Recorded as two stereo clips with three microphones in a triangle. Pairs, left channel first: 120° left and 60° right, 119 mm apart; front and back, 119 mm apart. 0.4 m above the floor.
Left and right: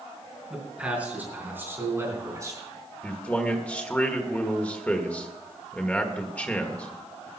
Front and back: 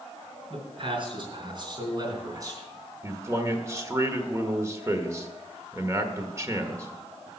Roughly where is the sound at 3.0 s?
Behind.